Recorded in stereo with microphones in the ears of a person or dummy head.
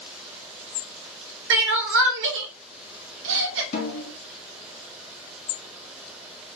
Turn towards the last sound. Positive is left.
turn(degrees=55)  # may be behind; listen again after turning